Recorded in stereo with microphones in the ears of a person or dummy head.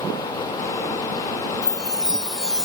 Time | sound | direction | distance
1.6 | a chime | centre (ahead or behind) | ?